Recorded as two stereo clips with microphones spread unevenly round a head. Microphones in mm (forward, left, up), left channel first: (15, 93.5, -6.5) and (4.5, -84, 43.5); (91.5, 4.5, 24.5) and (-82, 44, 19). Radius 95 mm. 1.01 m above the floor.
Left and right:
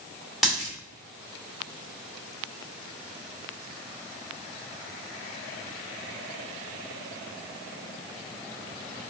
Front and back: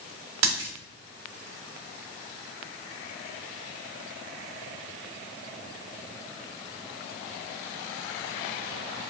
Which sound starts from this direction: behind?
A dropped coin, at 0.4 s.